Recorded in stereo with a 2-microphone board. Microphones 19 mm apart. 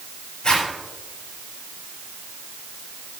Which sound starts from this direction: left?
A zipper, at 0.4 s.